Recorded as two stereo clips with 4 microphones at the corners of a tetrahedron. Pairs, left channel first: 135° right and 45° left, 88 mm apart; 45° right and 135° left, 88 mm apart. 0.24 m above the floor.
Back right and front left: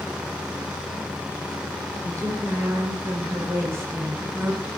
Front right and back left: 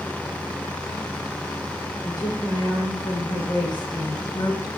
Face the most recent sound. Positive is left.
turn(degrees=-25)